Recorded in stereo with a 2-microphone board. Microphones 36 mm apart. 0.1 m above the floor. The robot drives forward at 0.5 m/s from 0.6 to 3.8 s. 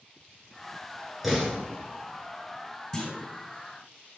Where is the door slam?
Centre (ahead or behind), 1.2 m.